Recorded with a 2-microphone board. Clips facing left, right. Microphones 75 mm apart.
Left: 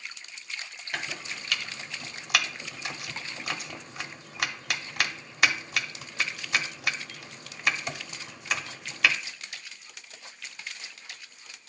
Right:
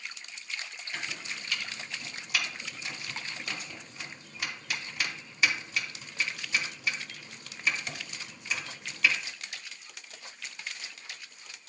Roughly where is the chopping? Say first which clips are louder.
Left 4 dB; left.